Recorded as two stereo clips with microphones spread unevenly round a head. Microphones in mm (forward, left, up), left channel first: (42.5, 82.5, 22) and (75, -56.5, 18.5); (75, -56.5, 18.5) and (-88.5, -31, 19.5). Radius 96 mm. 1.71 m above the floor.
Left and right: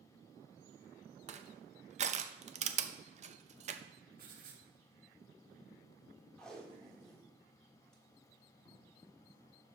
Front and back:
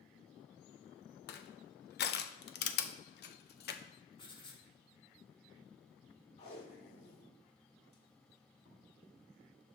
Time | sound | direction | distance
1.3 | crushing | 35° right | 0.7 m
4.2 | writing | 65° right | 1.7 m
6.4 | tape being pulled | 25° left | 1.5 m